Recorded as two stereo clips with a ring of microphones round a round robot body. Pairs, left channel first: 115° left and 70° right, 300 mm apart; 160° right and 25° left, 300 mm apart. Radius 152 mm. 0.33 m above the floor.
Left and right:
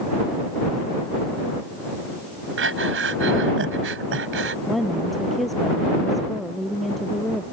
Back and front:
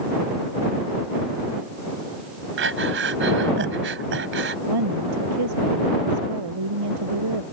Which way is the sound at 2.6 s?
25° right.